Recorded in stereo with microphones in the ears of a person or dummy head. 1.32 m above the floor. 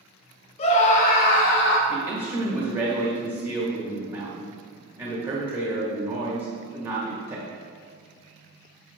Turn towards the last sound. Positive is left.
turn(degrees=-25)  # may be behind; listen again after turning